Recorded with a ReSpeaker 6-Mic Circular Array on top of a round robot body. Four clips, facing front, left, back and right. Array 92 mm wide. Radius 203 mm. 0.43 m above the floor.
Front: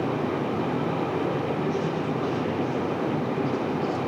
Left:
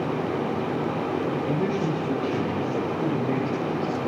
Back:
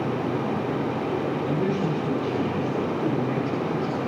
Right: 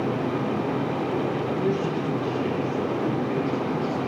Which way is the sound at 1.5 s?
115° left.